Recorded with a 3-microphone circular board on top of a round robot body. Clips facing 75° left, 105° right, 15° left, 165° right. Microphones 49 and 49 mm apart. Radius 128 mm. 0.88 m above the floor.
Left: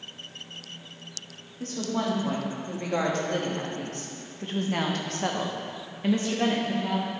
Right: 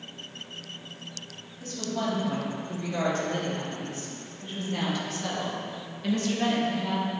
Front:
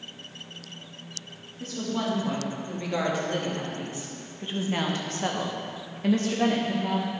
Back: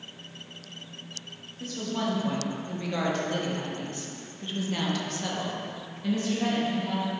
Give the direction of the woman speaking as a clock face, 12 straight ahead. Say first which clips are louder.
Left 2 dB, front 1 dB; 8 o'clock.